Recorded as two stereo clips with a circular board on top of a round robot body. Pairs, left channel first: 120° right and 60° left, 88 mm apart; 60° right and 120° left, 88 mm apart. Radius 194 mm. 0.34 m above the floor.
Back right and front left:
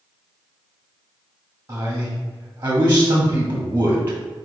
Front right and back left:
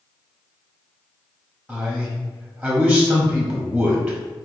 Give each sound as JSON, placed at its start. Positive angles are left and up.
{"t": 1.7, "sound": "a man speaking", "azimuth_deg": 45, "distance_m": 1.1}